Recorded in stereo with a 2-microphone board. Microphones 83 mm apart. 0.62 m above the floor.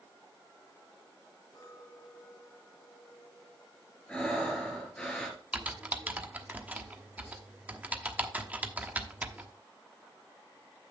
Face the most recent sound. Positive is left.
turn(degrees=-15)  # may be behind; listen again after turning